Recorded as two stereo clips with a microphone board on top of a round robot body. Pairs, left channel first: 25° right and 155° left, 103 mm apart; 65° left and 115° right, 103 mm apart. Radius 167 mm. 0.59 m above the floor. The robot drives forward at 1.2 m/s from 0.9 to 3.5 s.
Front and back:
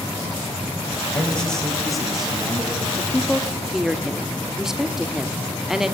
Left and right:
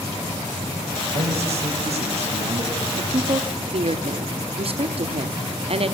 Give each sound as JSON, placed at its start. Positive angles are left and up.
{"t": 1.1, "sound": "a man speaking", "azimuth_deg": -100, "distance_m": 5.5}
{"t": 3.0, "sound": "a woman speaking", "azimuth_deg": -85, "distance_m": 1.3}